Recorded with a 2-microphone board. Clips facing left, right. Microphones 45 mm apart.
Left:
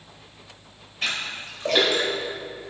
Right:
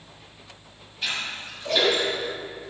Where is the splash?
60° left (ahead or behind), 5 m.